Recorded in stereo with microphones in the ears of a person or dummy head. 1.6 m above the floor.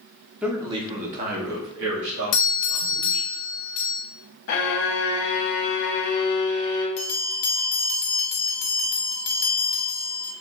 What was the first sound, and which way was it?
A man speaking, 5° right (ahead or behind).